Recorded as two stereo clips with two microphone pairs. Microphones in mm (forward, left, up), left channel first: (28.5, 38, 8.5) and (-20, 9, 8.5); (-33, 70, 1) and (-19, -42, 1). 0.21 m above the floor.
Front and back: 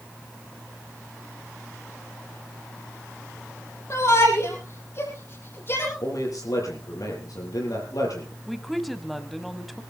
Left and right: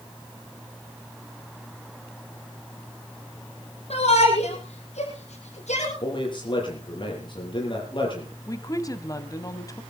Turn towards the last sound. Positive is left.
turn(degrees=120)